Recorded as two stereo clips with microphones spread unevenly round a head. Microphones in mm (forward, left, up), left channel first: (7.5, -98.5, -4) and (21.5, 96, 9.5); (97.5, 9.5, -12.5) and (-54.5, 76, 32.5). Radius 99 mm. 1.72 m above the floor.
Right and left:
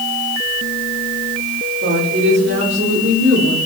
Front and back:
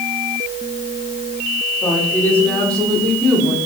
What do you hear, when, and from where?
1.8 s a woman speaking: 55° left, 6.5 m; by 3.6 s 70° left, 6 m